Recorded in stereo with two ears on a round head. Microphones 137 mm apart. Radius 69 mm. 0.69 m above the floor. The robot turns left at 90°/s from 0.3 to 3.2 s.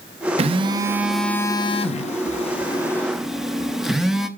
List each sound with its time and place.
0.4 s a phone buzzing: 110° right, 0.7 m; by 4.3 s 5° right, 0.7 m